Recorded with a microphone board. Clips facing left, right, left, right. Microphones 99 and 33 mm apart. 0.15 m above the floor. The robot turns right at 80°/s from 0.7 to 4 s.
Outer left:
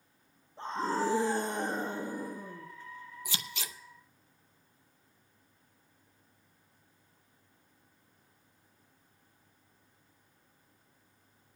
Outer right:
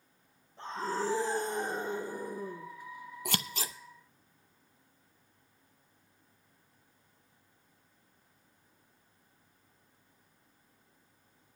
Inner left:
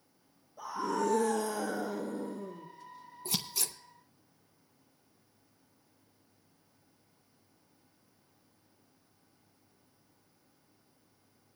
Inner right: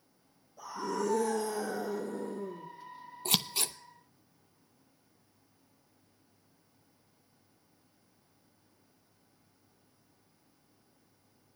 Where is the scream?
20° left, 3.5 m; by 2.7 s 175° left, 3.5 m.